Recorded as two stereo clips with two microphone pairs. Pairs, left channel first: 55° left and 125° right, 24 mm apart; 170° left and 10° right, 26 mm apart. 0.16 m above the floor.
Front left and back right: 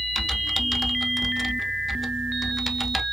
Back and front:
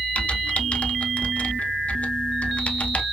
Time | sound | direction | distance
0.1 | typing on a keyboard | 145° left | 0.6 m